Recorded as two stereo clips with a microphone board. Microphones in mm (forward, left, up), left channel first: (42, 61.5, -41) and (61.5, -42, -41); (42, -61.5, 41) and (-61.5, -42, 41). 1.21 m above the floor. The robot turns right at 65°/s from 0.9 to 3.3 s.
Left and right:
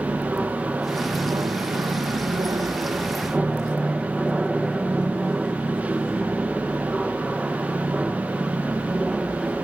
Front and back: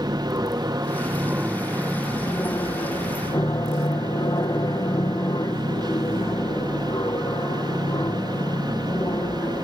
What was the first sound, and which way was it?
An aircraft, 155° right.